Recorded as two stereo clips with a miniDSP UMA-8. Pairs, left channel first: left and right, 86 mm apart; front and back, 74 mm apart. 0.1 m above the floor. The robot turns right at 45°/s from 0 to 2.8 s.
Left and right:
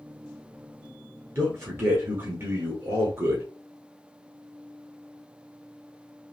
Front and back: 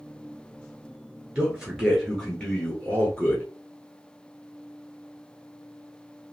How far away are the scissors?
No scissors in this recording.